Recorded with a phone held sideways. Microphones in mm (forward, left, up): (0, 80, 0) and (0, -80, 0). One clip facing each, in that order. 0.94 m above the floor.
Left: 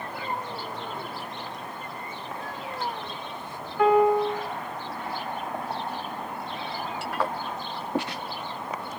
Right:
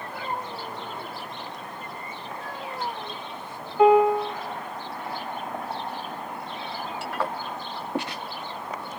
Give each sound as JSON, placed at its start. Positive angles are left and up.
{"t": 3.8, "sound": "a piano", "side_deg": -25, "distance_m": 1.5}